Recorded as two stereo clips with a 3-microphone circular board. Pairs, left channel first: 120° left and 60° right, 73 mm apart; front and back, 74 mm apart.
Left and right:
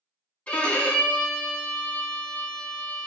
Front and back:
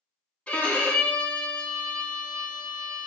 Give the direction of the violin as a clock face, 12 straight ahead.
10 o'clock.